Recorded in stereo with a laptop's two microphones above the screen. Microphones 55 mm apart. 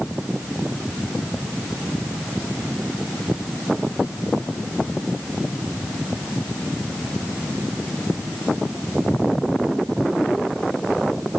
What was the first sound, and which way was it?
Only background noise.